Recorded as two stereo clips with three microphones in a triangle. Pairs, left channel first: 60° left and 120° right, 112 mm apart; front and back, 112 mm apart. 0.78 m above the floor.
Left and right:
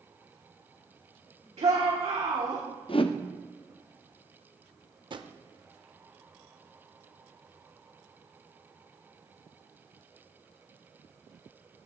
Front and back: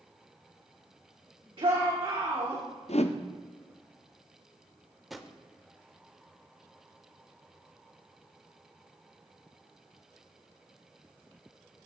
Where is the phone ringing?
I don't hear a phone ringing.